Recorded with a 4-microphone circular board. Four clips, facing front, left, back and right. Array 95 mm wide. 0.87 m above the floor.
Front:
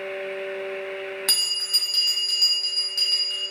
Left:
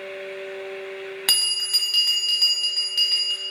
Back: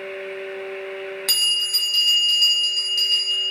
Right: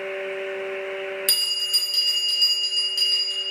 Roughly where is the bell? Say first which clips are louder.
Left 1 dB, back 6 dB; left.